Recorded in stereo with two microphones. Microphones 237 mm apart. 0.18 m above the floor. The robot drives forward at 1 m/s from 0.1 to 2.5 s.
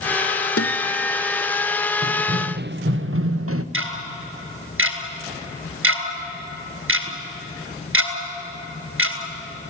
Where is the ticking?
65° right (ahead or behind), 2 m.